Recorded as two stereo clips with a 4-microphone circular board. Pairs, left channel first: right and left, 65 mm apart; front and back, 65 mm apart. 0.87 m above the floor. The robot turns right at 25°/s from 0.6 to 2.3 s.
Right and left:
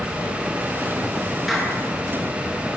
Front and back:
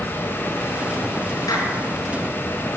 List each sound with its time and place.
1.5 s a clap: 5° left, 10 m; by 1.8 s 10° left, 10 m